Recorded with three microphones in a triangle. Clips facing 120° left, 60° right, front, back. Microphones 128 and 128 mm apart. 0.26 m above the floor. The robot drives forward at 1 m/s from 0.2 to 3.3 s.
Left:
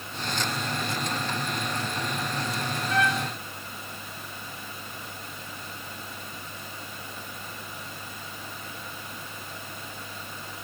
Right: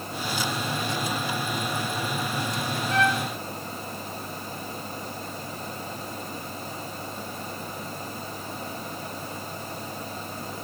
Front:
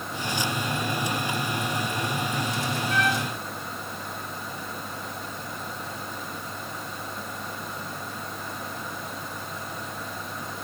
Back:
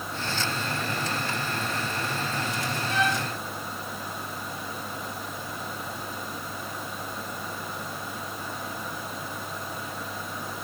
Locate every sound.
2.9 s a trumpet: 125° right, 9 m